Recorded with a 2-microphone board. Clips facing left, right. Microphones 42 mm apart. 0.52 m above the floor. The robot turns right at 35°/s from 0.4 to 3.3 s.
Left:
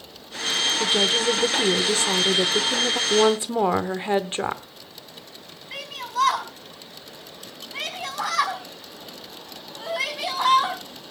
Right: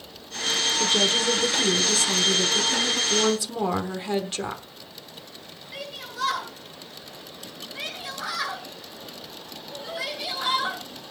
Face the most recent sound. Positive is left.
turn(degrees=75)  # may be behind; listen again after turning